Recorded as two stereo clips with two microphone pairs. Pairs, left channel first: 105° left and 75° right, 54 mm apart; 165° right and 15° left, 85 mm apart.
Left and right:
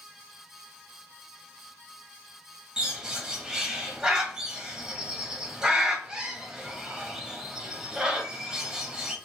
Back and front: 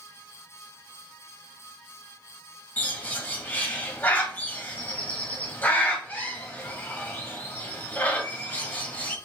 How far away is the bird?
About 1.1 m.